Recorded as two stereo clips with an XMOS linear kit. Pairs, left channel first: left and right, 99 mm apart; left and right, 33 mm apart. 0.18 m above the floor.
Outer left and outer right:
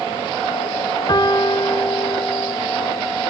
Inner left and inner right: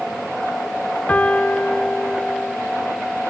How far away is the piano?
About 1.3 m.